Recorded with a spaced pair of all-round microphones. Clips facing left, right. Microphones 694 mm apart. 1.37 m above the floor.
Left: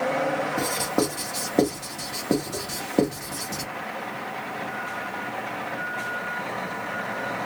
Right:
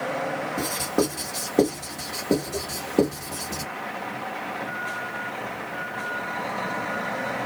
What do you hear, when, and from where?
0.6 s writing: 10° left (ahead or behind), 1.5 m